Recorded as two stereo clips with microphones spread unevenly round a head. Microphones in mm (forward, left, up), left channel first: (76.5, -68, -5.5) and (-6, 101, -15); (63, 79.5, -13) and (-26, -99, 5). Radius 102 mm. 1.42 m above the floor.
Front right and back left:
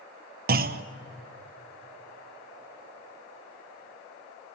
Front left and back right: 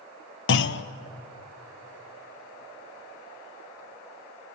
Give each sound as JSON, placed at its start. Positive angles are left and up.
{"t": 0.5, "sound": "a clunk", "azimuth_deg": 85, "distance_m": 0.8}